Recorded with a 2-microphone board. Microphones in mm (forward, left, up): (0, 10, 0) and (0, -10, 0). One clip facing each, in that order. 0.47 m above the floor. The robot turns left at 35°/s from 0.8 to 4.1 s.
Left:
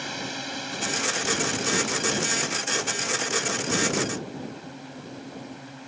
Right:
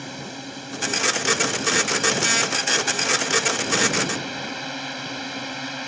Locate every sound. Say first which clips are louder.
0.0 s a drone: left 2 dB; 20° left; by 5.9 s 95° right